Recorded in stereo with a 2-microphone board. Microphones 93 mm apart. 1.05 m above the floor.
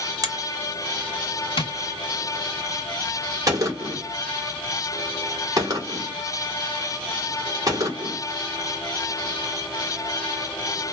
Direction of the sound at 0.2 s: 40° right (ahead or behind).